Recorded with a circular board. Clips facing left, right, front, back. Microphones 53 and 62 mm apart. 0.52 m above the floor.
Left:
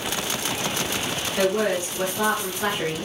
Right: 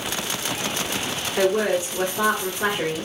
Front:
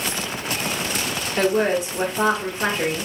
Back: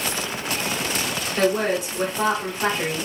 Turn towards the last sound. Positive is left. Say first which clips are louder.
# right 2 dB, front 2 dB
turn(degrees=-40)